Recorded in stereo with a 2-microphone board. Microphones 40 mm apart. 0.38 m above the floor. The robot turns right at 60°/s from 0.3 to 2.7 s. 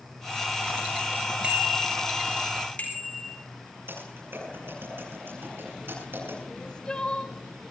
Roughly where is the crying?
Left.